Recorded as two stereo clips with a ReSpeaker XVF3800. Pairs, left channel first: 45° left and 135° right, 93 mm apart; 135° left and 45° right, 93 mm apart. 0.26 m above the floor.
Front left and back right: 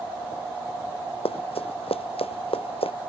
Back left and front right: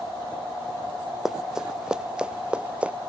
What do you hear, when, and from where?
1.2 s running footsteps: 40° left; by 2.9 s 30° left